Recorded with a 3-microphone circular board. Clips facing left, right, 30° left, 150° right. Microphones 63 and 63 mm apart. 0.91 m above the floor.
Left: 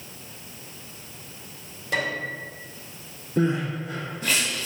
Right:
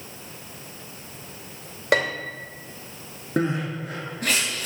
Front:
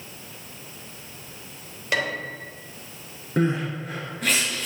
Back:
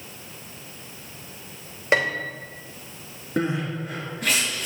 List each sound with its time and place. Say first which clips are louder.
1.9 s a piano: right 4 dB, back 4 dB; 90° right, 2.5 m
3.4 s crying: left 1 dB, front 2 dB; 65° right, 5.5 m